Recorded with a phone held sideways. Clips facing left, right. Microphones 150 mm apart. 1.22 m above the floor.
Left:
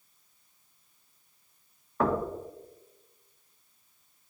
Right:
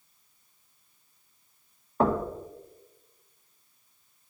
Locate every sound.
2.0 s knocking: 25° right (ahead or behind), 0.7 m